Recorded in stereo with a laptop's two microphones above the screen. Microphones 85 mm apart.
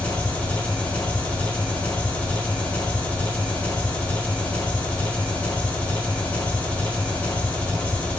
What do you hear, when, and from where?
0.0 s an engine running: 15° left (ahead or behind), 0.9 m